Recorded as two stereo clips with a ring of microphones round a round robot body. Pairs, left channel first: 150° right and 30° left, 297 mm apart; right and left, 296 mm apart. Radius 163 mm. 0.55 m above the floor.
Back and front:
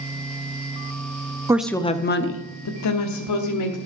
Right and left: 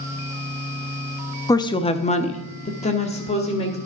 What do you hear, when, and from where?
1.5 s a woman speaking: 30° right, 0.7 m; by 3.8 s 160° right, 1.8 m